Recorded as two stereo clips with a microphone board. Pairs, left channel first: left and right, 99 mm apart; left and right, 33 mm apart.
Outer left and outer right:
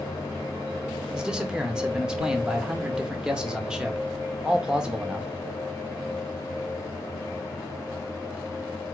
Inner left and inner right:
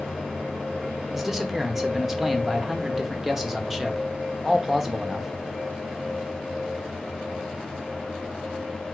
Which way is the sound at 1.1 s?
10° right (ahead or behind).